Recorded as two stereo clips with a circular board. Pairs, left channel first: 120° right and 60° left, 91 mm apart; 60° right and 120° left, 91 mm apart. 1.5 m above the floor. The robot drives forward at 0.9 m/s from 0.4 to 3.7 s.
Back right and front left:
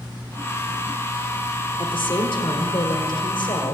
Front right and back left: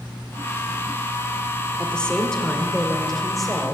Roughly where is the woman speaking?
Behind right.